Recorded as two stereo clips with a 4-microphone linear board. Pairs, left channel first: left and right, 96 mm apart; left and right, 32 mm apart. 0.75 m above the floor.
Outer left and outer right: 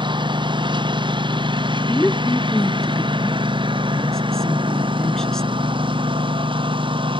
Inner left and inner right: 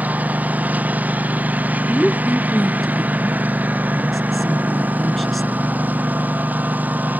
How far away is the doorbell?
I don't hear a doorbell.